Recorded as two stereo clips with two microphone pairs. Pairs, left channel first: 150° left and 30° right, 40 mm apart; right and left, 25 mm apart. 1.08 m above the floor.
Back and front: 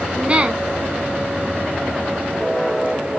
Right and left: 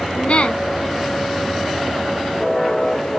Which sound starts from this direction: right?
A woman speaking, at 0.1 s.